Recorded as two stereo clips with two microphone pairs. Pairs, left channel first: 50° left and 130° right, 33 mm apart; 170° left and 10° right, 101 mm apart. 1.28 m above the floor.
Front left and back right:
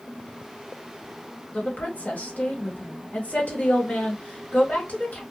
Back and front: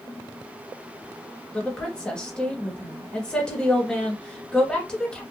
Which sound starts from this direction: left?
A woman speaking, at 1.5 s.